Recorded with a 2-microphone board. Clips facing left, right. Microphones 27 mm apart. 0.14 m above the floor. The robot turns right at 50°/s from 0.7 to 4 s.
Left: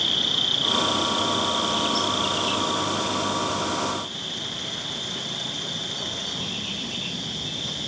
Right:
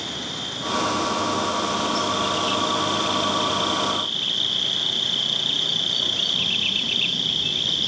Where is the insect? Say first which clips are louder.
Left 7 dB; 90° left, 1.2 m; by 7.9 s 105° right, 1.2 m.